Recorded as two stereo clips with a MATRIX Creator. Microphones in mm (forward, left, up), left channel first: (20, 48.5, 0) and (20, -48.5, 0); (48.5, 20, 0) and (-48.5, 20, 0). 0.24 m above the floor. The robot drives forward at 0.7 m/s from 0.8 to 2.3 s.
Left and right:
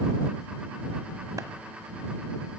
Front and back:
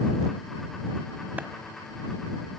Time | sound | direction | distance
1.4 | a clap | 115° right | 1.3 m